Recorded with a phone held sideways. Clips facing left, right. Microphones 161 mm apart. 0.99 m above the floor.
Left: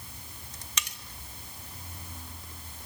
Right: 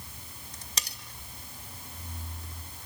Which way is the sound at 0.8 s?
35° right (ahead or behind).